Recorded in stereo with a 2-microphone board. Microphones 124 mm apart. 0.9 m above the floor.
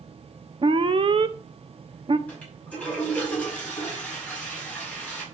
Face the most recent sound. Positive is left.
turn(degrees=10)  # may be behind; listen again after turning